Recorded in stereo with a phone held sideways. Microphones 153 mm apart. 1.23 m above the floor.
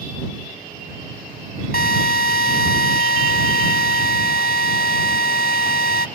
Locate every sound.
1.7 s a drill: 80° left